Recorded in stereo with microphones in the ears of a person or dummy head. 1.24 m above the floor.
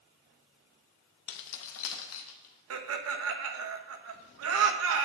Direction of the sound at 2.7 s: 85° right.